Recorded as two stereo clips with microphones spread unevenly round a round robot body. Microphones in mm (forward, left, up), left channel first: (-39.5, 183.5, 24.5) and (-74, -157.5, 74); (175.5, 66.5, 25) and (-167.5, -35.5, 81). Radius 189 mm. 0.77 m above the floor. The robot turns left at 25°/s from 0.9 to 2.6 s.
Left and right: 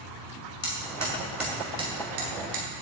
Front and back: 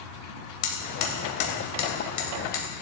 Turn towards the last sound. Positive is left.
turn(degrees=-40)